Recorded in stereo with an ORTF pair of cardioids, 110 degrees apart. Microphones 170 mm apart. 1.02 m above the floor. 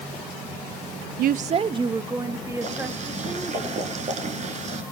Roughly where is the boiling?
Ahead right.